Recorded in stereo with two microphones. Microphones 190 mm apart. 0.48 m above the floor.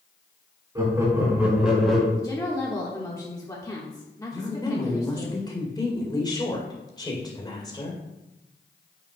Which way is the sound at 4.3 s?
20° left (ahead or behind).